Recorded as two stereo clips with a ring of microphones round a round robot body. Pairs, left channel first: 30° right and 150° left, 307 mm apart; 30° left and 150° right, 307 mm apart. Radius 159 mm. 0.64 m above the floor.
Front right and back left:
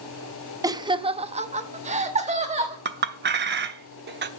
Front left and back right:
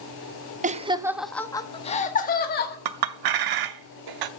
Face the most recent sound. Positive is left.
turn(degrees=-150)